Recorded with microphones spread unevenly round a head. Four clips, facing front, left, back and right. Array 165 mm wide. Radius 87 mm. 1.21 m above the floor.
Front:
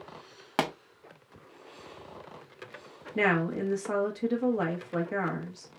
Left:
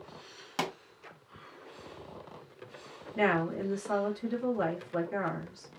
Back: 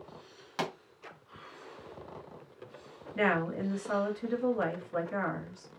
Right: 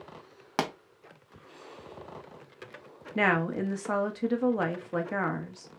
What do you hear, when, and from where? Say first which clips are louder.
0.6 s a pop: right 4 dB, front 6 dB; 30° right, 0.9 m
3.1 s a woman speaking: right 2 dB, front 2 dB; 65° right, 1.4 m